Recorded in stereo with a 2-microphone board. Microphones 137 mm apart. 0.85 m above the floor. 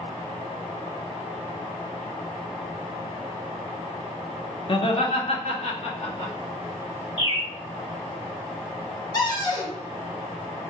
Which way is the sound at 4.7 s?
45° left (ahead or behind).